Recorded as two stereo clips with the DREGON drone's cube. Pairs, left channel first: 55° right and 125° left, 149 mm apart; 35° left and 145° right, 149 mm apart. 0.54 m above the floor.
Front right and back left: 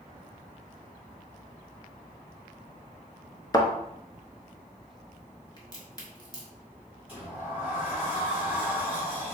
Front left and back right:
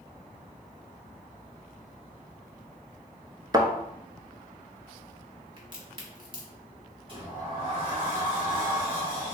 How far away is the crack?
About 1.1 m.